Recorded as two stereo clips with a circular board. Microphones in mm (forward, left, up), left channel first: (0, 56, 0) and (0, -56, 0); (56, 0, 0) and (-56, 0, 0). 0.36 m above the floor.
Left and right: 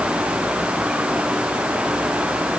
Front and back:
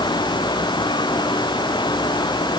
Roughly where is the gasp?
I don't hear a gasp.